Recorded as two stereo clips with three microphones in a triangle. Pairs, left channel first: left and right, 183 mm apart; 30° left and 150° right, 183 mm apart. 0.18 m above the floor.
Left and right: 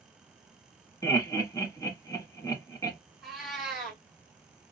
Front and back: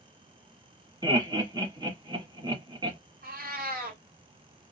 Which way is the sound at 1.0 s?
155° left.